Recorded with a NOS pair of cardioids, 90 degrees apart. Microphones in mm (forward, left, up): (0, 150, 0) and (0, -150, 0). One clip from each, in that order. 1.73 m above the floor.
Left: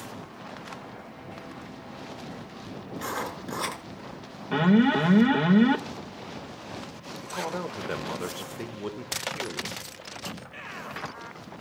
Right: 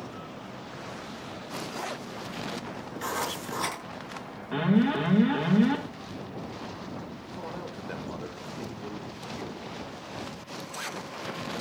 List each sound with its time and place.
3.0 s writing: 10° left, 6.5 m
4.5 s an alarm: 35° left, 2 m
7.2 s a man speaking: 55° left, 2 m